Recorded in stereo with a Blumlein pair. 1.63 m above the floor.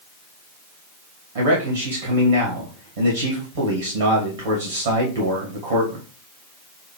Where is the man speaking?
60° right, 2.5 m.